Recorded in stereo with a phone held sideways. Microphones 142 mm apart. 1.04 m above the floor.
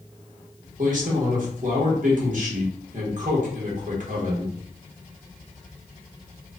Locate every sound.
0.8 s a man speaking: 60° right (ahead or behind), 1.0 m